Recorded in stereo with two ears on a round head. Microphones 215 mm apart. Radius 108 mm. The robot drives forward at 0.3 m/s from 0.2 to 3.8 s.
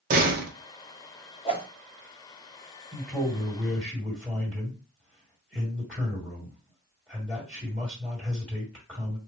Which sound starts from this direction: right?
A door slam, at 0.1 s.